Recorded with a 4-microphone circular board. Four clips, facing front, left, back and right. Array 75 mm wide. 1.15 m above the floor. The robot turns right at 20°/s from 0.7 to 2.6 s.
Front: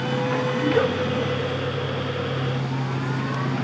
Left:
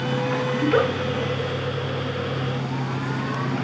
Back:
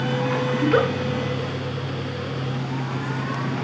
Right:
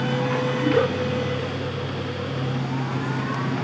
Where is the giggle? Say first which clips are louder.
Left 1 dB, back 2 dB; 145° left, 9 m; by 0.9 s 150° left, 9 m.